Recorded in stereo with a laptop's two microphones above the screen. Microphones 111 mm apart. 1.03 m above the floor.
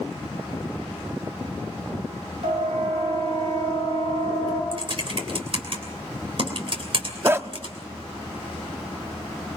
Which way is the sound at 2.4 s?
70° right (ahead or behind).